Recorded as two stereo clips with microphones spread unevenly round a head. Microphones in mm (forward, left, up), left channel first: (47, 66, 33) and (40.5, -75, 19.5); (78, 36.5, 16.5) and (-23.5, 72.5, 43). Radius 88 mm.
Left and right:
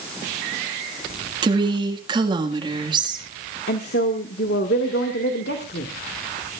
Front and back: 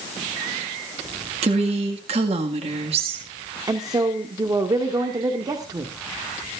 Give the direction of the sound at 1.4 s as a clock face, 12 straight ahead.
5 o'clock.